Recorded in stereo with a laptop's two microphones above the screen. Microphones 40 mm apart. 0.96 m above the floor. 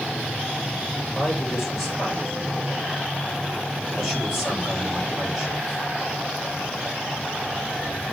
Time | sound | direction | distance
1.1 | a man speaking | 10° right (ahead or behind) | 2.5 m